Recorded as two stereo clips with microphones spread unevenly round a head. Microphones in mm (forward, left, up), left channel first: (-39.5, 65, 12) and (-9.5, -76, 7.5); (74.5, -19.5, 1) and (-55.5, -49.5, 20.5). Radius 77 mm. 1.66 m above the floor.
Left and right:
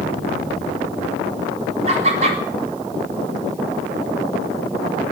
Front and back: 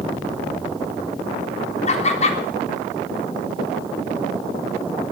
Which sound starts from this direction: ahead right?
Laughter, at 1.9 s.